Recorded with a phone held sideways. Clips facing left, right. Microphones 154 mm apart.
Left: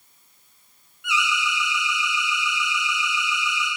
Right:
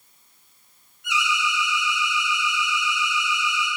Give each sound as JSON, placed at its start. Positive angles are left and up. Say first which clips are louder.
{"t": 1.0, "sound": "an alarm", "louder": "even", "side_deg": -40, "distance_m": 1.1}